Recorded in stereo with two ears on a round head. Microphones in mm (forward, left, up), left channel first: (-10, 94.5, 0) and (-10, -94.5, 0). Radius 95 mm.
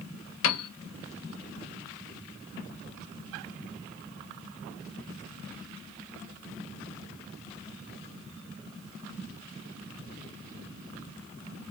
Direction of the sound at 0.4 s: 70° left (ahead or behind).